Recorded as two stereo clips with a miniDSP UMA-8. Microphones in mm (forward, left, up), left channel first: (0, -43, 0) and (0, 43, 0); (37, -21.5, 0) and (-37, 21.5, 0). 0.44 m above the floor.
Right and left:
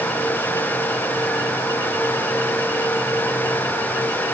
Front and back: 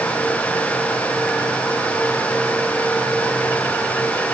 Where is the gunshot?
I don't hear a gunshot.